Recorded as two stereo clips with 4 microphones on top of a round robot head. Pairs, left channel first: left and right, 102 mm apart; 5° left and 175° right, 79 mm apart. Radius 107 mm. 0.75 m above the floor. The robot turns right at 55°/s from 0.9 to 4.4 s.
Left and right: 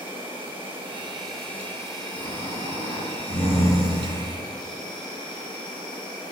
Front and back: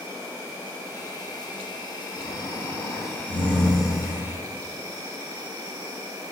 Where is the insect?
55° right, 3.5 m; by 6.3 s 135° left, 3.5 m.